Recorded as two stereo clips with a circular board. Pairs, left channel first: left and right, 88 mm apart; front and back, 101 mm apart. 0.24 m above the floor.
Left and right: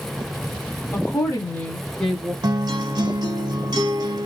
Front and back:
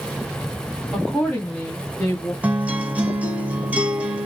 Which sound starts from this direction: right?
A guitar, at 2.4 s.